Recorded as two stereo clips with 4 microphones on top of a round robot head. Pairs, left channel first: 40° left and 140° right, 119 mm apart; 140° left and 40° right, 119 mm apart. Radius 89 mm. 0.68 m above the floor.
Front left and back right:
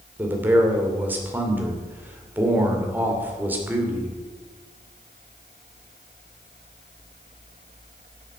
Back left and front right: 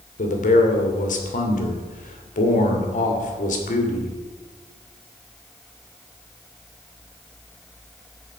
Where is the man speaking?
145° left, 2.5 m.